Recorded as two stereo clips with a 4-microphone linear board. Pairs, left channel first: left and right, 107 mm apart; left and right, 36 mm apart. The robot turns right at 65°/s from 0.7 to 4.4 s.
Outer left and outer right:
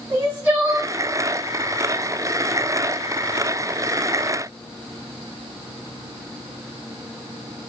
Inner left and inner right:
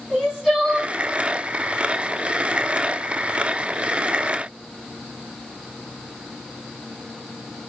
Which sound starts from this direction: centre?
Crying, at 0.1 s.